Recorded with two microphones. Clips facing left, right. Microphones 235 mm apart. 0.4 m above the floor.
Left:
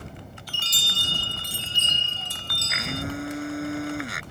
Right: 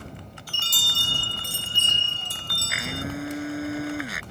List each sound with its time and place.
0.5 s a chime: 50° right (ahead or behind)
2.7 s a blender: centre (ahead or behind)